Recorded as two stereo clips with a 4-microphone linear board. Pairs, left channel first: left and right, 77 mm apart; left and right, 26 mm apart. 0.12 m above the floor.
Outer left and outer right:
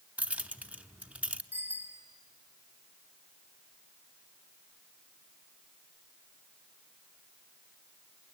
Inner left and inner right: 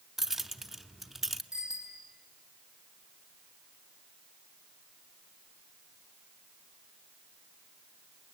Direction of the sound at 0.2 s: 15° right (ahead or behind).